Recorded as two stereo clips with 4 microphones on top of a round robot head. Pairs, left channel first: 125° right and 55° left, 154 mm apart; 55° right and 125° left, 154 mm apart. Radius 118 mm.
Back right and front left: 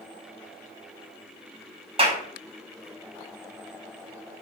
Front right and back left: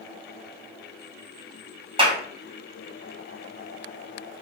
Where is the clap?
90° left, 1.3 m.